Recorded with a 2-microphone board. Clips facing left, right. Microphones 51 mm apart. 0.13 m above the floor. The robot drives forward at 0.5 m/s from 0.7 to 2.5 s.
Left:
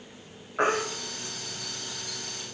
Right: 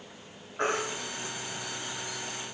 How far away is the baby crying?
About 5 m.